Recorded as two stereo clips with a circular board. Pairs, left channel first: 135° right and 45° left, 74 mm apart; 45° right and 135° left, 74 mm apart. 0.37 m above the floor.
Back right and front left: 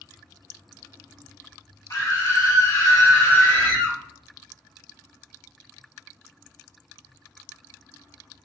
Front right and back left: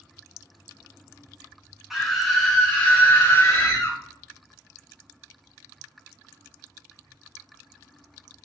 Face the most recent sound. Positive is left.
turn(degrees=-80)